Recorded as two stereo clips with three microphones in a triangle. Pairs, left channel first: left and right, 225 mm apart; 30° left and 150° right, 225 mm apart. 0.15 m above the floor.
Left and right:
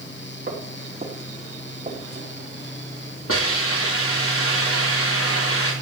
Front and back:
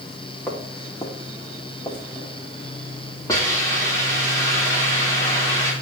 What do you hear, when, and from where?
0.5 s footsteps: 50° right, 5.5 m; by 2.3 s 35° right, 5.5 m
3.3 s a hiss: 105° left, 8.5 m